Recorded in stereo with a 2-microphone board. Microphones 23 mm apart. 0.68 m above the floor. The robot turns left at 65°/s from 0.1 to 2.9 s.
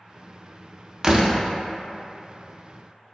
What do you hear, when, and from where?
1.0 s a door slam: 25° right (ahead or behind), 0.5 m; by 1.4 s 40° right (ahead or behind), 0.5 m